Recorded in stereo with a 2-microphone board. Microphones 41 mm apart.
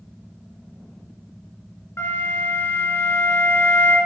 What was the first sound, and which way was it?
A flute, 70° left (ahead or behind).